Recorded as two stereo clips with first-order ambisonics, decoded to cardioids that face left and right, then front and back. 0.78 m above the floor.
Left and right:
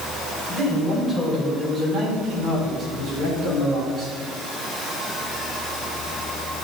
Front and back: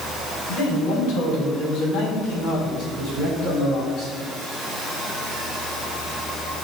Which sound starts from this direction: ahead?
A man speaking, at 0.5 s.